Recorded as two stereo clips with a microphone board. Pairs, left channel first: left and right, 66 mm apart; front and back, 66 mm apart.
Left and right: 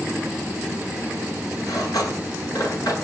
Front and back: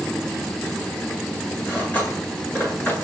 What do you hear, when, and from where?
1.7 s cutlery clinking: 60° left, 9.5 m